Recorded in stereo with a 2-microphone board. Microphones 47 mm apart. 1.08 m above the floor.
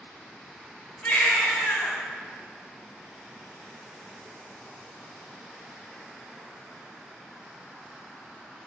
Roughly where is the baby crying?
Left.